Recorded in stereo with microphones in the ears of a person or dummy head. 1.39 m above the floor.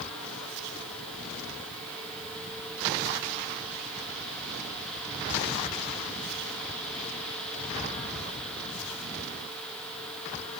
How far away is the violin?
I don't hear a violin.